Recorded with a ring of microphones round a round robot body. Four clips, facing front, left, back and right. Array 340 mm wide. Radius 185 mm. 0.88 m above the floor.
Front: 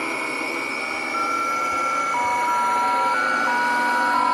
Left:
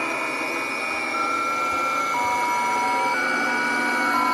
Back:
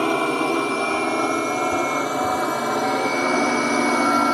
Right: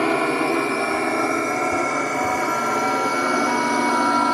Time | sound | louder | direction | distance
0.0 | a drone | right 8 dB, back 7 dB | 130° right | ?